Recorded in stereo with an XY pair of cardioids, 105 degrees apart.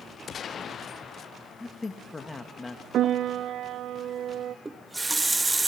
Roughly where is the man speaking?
Ahead left.